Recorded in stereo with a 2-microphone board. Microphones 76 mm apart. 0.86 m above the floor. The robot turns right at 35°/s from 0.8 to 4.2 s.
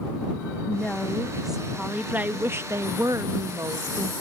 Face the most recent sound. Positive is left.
turn(degrees=-80)